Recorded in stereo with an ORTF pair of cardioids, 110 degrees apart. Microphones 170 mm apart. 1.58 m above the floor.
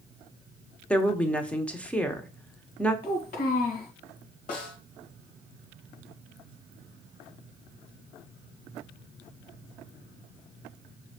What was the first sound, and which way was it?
A woman speaking, 10° left.